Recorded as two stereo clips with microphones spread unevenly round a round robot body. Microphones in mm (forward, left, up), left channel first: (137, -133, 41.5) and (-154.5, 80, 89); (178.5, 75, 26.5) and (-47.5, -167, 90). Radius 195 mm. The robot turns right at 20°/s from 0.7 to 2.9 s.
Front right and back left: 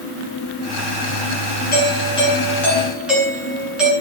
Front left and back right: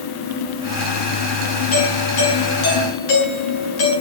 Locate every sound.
1.7 s a doorbell: 30° left, 10 m; by 3.9 s 55° left, 10 m